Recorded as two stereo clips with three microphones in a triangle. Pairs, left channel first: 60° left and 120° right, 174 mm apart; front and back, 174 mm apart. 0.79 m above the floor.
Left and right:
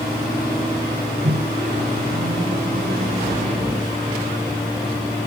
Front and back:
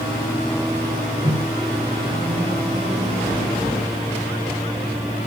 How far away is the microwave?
About 3.5 m.